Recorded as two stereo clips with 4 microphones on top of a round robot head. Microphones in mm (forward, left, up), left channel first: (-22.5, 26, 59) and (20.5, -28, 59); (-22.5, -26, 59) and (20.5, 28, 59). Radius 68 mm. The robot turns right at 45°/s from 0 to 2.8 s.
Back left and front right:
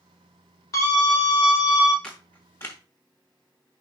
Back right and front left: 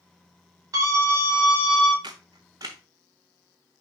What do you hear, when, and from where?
0.7 s a scream: 90° left, 4.5 m; by 1.9 s 145° left, 4.5 m
2.0 s a camera shutter: 50° left, 0.7 m; by 2.8 s 85° left, 0.7 m